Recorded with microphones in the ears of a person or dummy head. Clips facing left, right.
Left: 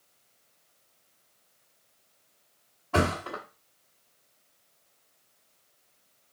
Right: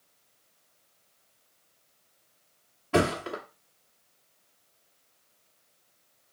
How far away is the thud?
About 1.1 m.